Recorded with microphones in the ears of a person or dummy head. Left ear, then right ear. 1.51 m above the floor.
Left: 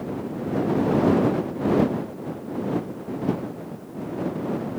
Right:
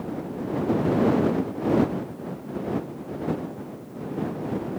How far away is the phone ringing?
I don't hear a phone ringing.